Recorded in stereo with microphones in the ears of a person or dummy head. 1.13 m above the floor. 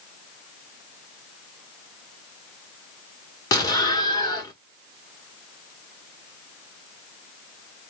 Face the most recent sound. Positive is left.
turn(degrees=25)  # may be behind; listen again after turning